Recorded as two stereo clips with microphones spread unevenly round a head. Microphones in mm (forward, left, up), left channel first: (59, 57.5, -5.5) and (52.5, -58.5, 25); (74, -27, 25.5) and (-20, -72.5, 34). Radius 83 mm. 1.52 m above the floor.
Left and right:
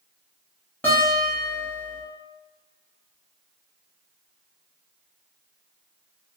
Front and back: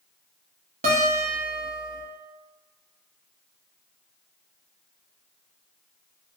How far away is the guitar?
About 0.6 m.